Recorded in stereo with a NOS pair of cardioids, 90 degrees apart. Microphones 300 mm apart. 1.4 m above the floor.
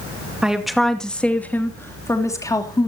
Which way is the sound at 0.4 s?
Straight ahead.